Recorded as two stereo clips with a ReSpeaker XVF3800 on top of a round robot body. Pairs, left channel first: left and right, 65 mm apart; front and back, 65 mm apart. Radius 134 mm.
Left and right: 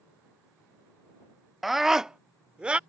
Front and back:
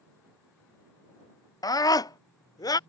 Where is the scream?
Straight ahead; by 2.8 s 15° right.